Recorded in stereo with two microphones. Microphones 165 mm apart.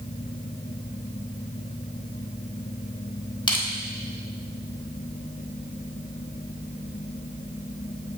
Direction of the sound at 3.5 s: 30° left (ahead or behind).